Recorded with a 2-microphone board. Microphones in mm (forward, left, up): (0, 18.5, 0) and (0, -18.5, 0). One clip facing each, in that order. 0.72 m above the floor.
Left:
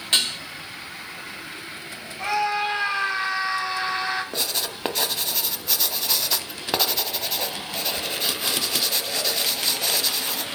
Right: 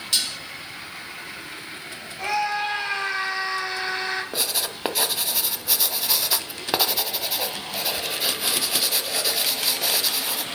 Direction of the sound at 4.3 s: 5° right (ahead or behind).